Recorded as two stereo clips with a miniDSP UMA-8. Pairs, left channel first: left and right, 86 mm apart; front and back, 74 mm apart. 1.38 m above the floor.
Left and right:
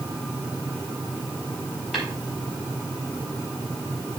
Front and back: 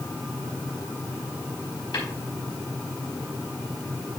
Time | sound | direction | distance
1.9 | tapping | straight ahead | 4 m